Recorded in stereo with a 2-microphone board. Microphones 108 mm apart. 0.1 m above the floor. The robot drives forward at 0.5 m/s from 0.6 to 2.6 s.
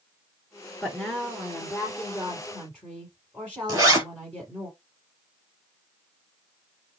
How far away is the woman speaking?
About 1.8 m.